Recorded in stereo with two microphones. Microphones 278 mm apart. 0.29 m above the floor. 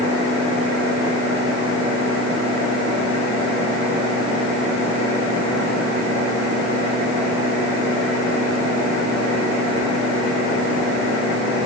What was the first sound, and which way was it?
Only background noise.